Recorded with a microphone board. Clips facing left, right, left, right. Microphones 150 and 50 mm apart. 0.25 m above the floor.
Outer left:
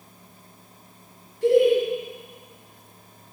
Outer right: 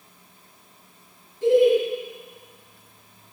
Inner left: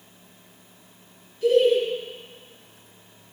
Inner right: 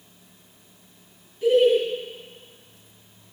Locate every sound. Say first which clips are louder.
1.4 s laughter: outer right 1 dB, inner right 1 dB; 20° right (ahead or behind), 1.9 m